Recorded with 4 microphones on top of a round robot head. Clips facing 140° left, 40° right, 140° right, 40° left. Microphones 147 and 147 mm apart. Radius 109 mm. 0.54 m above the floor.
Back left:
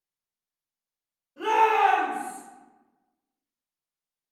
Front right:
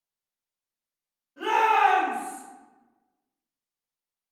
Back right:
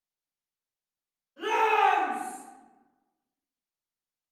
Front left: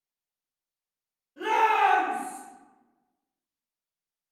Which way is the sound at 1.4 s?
75° left.